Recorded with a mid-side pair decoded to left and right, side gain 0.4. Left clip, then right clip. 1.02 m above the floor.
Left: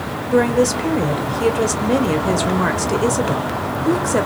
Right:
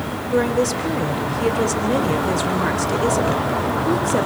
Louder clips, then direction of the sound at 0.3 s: Left 3 dB; 35° left.